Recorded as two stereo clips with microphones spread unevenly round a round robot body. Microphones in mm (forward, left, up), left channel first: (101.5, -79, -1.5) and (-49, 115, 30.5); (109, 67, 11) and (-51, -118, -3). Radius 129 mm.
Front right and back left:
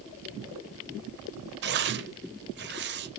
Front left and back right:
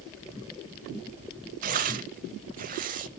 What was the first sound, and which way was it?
Tearing paper, 175° left.